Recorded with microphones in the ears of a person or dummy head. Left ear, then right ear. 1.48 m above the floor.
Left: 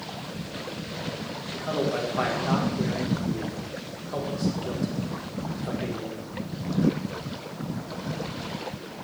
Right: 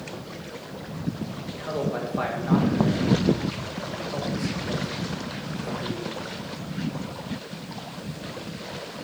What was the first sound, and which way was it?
A man speaking, centre (ahead or behind).